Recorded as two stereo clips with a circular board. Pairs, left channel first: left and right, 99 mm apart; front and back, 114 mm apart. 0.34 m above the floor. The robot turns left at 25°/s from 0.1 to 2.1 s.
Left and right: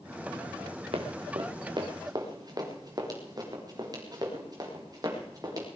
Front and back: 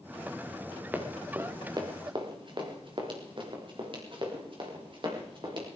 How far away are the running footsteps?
About 3.5 m.